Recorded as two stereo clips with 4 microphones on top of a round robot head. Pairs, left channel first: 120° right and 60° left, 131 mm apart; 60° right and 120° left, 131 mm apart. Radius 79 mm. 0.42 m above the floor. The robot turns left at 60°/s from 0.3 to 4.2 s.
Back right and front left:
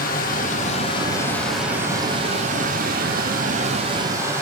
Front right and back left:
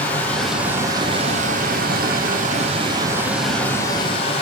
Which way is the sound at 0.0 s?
135° right.